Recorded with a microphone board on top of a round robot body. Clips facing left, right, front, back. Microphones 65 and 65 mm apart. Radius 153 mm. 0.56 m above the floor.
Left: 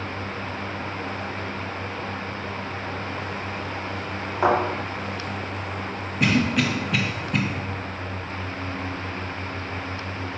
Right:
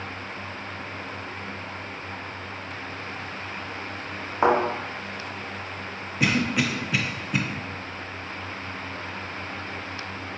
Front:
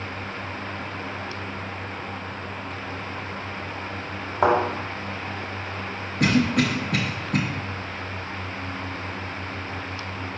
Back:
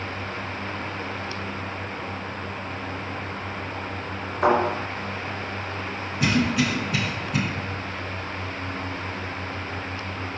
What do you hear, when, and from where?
4.4 s a thud: 15° right, 1.6 m
6.2 s a cough: 5° right, 0.8 m